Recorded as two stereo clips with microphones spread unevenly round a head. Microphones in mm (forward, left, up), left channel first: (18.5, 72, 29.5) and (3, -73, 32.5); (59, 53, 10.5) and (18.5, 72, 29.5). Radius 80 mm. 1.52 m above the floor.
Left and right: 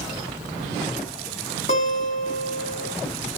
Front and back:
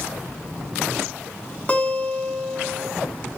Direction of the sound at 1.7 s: 40° left.